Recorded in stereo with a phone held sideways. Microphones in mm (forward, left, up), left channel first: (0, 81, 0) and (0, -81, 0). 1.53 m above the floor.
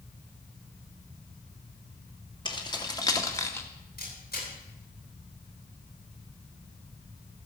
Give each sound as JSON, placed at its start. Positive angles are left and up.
{"t": 2.5, "sound": "keys jangling", "side_deg": 30, "distance_m": 2.5}
{"t": 4.0, "sound": "a camera shutter", "side_deg": 75, "distance_m": 9.5}